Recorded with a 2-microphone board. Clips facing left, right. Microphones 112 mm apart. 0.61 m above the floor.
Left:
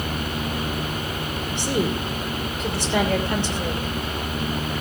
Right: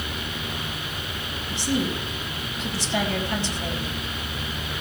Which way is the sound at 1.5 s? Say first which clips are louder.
Left 1 dB; 60° left (ahead or behind).